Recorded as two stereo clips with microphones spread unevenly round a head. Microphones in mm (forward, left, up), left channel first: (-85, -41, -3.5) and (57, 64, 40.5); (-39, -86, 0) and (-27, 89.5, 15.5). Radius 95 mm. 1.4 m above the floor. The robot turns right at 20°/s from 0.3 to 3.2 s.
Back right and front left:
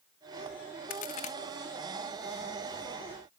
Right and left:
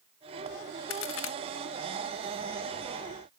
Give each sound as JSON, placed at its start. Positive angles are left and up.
{"t": 0.9, "sound": "a crack", "azimuth_deg": -90, "distance_m": 1.3}